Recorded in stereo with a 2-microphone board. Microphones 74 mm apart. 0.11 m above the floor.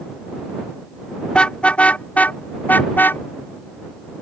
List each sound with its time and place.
1.3 s a car horn: 15° left (ahead or behind); by 3.2 s 25° left (ahead or behind)